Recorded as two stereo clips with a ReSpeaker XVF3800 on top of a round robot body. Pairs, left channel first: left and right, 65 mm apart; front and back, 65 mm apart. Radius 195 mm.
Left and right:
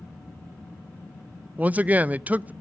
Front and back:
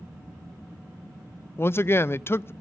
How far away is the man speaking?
About 0.5 m.